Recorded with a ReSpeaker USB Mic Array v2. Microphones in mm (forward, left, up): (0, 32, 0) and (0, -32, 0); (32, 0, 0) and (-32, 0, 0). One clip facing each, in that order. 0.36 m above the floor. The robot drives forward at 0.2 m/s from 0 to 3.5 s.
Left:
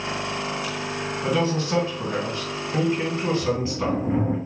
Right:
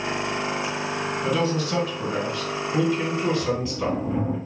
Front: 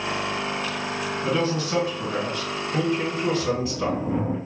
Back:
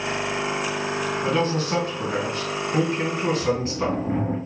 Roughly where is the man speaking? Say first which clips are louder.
Left 2 dB, even; behind left.